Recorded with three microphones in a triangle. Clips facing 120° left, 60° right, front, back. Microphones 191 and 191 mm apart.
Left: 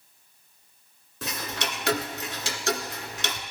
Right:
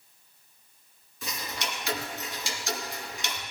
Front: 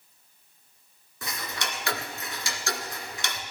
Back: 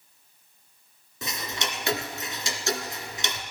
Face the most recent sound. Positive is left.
turn(degrees=110)